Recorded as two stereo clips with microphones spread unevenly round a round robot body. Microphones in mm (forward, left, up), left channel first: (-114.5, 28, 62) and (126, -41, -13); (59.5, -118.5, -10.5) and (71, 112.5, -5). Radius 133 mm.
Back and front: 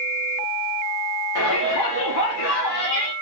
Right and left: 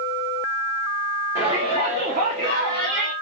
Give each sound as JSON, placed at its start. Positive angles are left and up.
{"t": 1.4, "sound": "a shout", "azimuth_deg": 165, "distance_m": 2.0}